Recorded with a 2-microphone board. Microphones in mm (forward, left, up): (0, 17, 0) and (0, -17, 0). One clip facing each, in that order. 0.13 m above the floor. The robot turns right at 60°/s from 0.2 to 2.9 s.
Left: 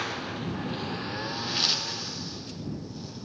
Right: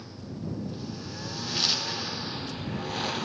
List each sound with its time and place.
0.0 s a lawn mower: 85° left; by 3.3 s 110° right